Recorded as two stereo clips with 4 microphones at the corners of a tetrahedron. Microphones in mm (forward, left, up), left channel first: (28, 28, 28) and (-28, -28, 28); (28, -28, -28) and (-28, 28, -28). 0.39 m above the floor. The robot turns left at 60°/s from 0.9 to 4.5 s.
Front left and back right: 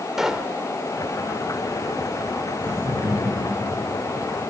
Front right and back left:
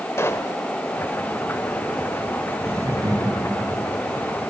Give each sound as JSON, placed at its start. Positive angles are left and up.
{"t": 0.2, "sound": "a pop", "azimuth_deg": -55, "distance_m": 1.3}
{"t": 2.6, "sound": "laughter", "azimuth_deg": -165, "distance_m": 6.0}